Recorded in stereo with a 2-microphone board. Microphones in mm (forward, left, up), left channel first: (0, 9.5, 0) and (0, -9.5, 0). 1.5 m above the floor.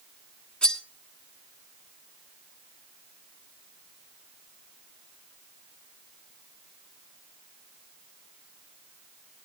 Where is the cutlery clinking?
65° left (ahead or behind), 2 m.